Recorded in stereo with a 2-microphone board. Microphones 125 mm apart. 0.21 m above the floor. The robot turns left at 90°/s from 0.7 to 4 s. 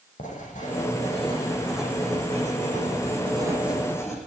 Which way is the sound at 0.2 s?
95° left.